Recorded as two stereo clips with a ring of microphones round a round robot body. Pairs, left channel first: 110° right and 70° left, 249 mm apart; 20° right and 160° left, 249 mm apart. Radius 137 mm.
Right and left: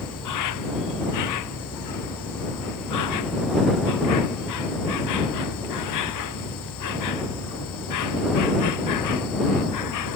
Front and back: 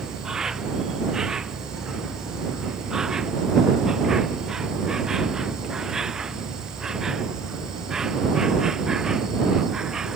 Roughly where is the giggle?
I don't hear a giggle.